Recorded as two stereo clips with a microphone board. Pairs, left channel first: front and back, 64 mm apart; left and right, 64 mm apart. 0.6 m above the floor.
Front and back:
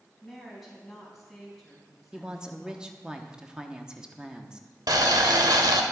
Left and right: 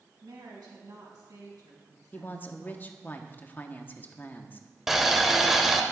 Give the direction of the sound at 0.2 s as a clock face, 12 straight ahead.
3 o'clock.